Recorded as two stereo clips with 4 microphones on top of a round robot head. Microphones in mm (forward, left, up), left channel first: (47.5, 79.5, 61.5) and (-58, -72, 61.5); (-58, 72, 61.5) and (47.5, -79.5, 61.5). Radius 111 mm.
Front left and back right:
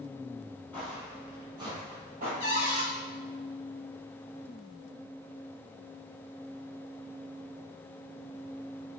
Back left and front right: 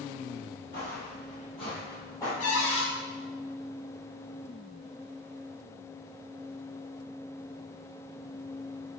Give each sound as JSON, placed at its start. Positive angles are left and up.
{"t": 0.7, "sound": "footsteps", "azimuth_deg": 135, "distance_m": 1.6}
{"t": 2.4, "sound": "a cupboard door", "azimuth_deg": 110, "distance_m": 1.9}